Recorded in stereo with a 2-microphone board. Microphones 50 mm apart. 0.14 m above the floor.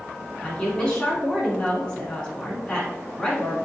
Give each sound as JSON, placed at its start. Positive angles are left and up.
{"t": 0.4, "sound": "a woman speaking", "side_deg": 20, "distance_m": 1.1}